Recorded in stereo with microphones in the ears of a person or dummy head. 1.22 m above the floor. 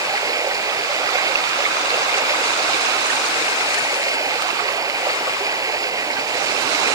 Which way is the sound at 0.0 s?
10° right (ahead or behind).